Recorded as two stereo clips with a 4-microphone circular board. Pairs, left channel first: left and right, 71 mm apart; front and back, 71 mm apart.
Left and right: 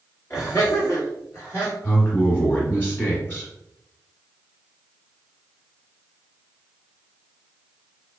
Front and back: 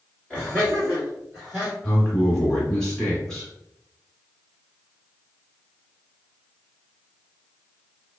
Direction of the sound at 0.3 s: 60° left.